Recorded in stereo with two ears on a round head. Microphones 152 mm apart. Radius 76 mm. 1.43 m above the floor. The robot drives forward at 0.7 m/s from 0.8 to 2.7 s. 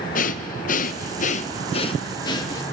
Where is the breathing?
50° left (ahead or behind), 0.7 m; by 2.6 s 20° left (ahead or behind), 1.4 m.